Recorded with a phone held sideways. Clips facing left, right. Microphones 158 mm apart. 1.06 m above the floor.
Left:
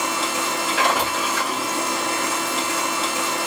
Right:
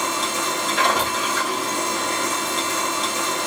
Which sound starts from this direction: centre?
A machine running, at 0.0 s.